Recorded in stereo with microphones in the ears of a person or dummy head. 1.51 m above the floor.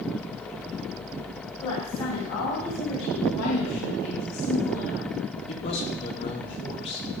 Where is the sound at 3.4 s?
80° left, 2.5 m.